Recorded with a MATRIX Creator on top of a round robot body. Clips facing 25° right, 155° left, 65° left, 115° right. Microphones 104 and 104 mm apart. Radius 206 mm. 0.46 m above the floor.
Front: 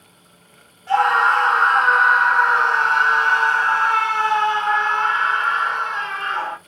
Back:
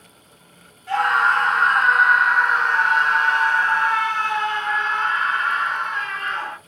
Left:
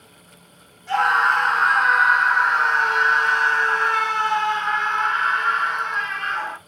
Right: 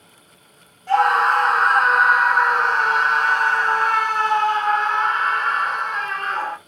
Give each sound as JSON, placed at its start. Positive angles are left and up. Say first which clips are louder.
{"t": 0.9, "sound": "a scream", "louder": "front 3 dB, right 3 dB", "azimuth_deg": -80, "distance_m": 2.0}